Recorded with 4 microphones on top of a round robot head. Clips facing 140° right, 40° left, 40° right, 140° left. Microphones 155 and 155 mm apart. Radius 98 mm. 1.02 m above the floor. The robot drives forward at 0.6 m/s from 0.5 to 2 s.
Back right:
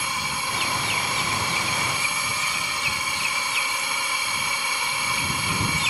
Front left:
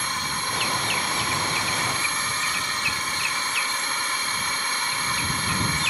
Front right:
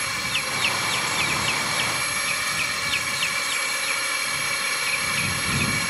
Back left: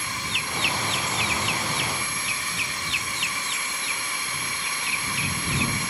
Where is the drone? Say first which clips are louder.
Back right 1 dB, front right 1 dB; 55° right.